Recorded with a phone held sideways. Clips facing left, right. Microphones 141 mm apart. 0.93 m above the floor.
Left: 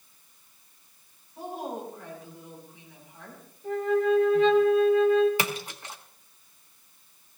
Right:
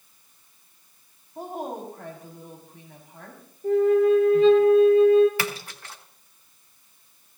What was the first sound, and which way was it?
A woman speaking, 65° right (ahead or behind).